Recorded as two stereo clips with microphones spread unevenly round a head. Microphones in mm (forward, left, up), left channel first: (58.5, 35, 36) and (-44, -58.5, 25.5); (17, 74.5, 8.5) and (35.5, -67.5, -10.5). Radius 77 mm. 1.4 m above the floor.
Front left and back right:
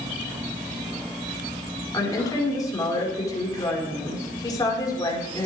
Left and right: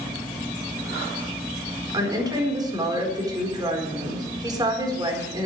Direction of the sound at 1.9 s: 20° right.